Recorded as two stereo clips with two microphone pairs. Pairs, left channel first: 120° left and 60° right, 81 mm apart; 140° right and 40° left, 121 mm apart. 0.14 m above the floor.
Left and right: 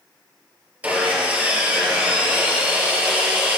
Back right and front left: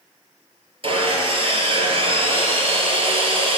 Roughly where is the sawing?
Ahead.